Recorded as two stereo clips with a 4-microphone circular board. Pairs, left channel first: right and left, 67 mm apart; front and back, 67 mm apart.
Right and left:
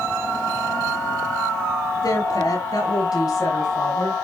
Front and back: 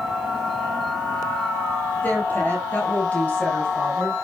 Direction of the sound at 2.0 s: 65° right.